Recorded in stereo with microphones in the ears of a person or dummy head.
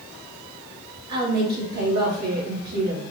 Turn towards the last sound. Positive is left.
turn(degrees=-55)  # may be behind; listen again after turning